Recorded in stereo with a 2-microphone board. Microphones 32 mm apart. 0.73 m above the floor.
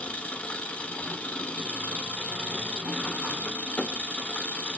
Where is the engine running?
45° left (ahead or behind), 0.7 m.